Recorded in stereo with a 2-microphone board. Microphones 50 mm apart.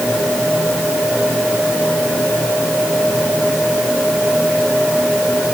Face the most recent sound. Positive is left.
No sound to turn to.